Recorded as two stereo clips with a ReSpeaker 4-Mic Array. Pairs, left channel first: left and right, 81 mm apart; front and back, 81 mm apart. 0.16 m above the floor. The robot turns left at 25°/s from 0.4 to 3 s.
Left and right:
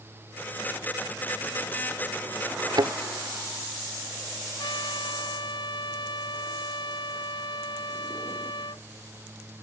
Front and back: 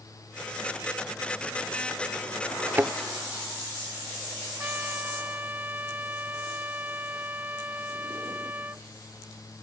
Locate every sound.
2.8 s a thud: 115° right; by 2.9 s 120° right
4.6 s a trumpet: 115° left